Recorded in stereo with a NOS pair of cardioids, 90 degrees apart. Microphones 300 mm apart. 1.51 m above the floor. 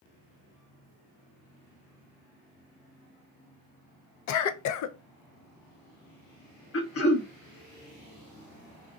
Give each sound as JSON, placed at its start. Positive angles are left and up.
{"t": 4.3, "sound": "a cough", "azimuth_deg": 70, "distance_m": 0.6}
{"t": 6.7, "sound": "throat clearing", "azimuth_deg": 50, "distance_m": 0.9}